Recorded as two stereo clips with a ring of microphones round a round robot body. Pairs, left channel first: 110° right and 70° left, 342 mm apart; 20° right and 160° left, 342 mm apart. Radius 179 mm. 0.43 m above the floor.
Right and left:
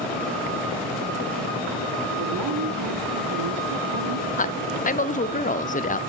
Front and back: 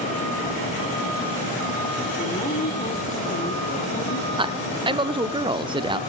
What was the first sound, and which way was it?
A woman speaking, 45° left.